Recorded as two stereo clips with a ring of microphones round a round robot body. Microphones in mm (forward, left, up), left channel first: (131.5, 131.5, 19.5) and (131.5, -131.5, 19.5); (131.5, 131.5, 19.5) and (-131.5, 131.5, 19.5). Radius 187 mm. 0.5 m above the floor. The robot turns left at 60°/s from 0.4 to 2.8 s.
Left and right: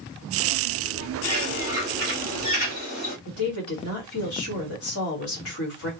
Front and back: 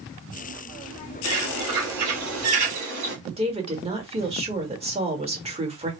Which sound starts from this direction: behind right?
A bird, at 1.2 s.